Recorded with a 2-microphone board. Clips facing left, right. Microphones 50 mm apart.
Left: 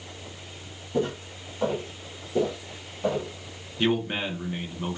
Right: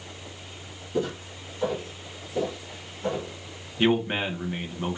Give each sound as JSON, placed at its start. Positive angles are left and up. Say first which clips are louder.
{"t": 0.9, "sound": "footsteps", "louder": "left 1 dB", "side_deg": 40, "distance_m": 1.9}
{"t": 3.8, "sound": "a man speaking", "louder": "right 2 dB", "side_deg": -15, "distance_m": 0.7}